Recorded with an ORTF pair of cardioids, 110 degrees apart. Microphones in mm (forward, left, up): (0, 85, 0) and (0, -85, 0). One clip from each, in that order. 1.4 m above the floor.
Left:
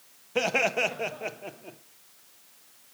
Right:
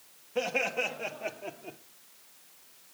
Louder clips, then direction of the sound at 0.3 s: Left 5 dB; 45° left.